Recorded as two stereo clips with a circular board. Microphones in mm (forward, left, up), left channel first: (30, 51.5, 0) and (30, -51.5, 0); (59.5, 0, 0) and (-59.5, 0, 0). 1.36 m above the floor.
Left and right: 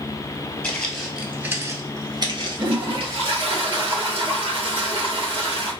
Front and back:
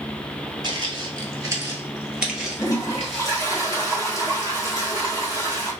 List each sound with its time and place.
0.6 s footsteps: 160° left, 1.7 m; by 3.5 s 75° right, 2.5 m
2.6 s a toilet flushing: 55° right, 2.5 m